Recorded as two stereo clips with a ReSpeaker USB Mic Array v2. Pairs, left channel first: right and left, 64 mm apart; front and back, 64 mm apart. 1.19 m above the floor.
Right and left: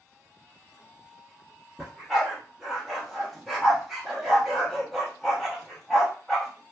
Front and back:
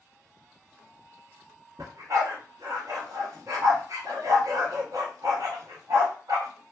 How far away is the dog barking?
About 0.9 m.